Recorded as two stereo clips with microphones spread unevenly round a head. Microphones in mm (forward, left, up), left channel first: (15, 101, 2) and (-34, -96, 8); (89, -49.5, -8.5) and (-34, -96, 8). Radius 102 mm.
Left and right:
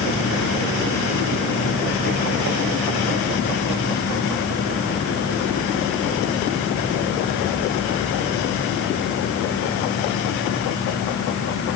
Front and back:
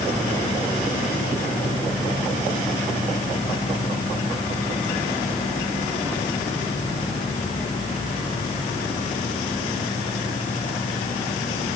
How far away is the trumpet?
I don't hear a trumpet.